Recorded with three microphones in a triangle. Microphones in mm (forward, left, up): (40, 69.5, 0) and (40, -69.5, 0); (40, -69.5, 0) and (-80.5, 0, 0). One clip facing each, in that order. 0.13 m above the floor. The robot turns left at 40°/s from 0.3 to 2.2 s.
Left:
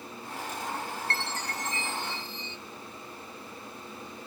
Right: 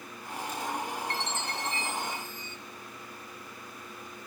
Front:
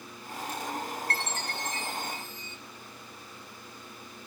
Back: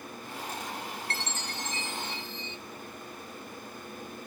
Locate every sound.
1.1 s a chime: 15° right, 1.1 m; by 2.6 s 60° right, 1.1 m